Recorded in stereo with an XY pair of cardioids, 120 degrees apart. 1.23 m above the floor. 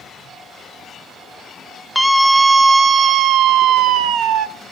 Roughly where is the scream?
Ahead.